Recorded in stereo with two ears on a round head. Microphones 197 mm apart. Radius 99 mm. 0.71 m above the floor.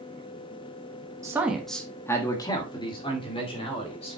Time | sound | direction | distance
1.2 | a man speaking | 15° right (ahead or behind) | 1.0 m